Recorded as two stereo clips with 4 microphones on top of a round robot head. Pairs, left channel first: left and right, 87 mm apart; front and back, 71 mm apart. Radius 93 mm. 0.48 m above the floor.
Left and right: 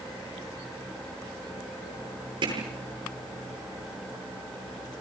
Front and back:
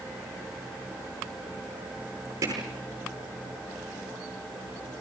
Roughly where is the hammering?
Behind right.